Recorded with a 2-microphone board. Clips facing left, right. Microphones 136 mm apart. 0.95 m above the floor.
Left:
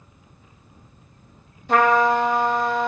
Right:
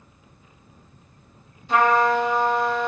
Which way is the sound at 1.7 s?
60° left (ahead or behind).